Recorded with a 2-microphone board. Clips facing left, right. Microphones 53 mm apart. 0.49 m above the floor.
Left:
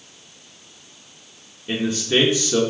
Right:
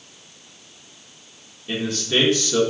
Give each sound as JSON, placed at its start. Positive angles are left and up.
{"t": 1.7, "sound": "a man speaking", "side_deg": 20, "distance_m": 1.1}